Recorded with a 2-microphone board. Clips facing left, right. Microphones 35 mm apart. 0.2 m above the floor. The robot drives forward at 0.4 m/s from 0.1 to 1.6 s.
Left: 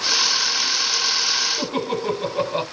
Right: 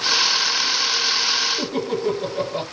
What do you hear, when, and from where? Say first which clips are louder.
1.6 s laughter: right 1 dB; 40° left (ahead or behind), 1.4 m